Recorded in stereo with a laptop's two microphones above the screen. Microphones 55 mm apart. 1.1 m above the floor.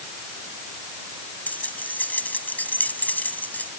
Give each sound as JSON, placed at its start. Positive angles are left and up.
{"t": 1.5, "sound": "keys jangling", "side_deg": 30}